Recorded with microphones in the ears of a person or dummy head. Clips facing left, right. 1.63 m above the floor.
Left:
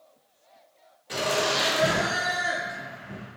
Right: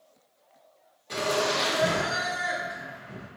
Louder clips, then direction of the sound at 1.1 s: Even; 10° left (ahead or behind).